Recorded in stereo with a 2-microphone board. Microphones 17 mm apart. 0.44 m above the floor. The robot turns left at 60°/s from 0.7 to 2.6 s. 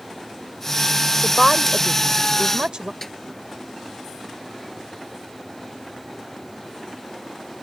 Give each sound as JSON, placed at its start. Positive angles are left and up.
{"t": 1.2, "sound": "a woman speaking", "azimuth_deg": 20}
{"t": 3.0, "sound": "a snare drum", "side_deg": 25}